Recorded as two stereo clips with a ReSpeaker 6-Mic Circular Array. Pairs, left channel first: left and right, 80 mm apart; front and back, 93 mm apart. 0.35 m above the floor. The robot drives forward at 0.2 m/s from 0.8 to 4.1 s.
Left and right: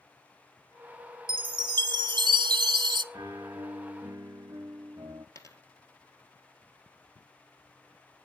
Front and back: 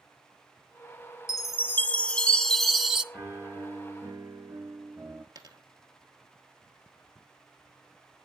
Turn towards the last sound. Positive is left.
turn(degrees=135)